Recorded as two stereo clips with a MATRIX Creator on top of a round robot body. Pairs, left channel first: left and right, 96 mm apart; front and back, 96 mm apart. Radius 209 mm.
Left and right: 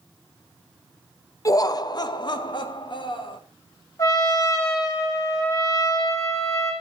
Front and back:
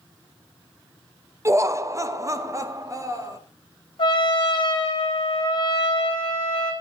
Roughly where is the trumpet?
Ahead left.